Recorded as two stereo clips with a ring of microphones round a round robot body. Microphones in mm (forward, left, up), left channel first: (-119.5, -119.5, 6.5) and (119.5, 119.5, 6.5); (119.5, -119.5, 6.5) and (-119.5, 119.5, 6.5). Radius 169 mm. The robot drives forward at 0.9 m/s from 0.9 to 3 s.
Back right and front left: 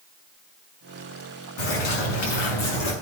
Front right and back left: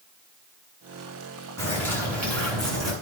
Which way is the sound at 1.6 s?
130° right.